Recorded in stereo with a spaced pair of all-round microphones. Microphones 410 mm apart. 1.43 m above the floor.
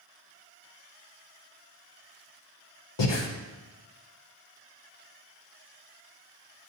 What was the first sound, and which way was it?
Breathing, 75° left (ahead or behind).